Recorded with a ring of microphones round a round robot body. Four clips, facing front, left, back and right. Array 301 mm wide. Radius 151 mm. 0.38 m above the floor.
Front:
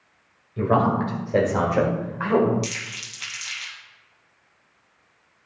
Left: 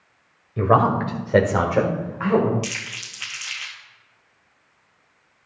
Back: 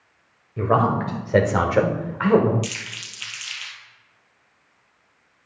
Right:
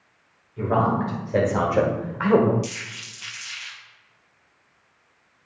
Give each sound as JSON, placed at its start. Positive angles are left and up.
{"t": 0.6, "sound": "a man speaking", "azimuth_deg": 95, "distance_m": 2.0}
{"t": 2.6, "sound": "crumpling", "azimuth_deg": 75, "distance_m": 2.5}